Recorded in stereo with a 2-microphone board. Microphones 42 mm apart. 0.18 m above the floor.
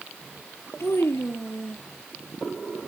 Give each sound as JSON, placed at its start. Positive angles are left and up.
{"t": 0.8, "sound": "a child speaking", "side_deg": 70}